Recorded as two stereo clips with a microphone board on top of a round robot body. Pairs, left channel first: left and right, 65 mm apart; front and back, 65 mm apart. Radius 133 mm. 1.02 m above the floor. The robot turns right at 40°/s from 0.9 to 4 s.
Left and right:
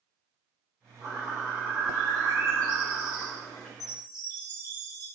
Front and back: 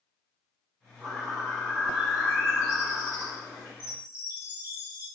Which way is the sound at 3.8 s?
120° left.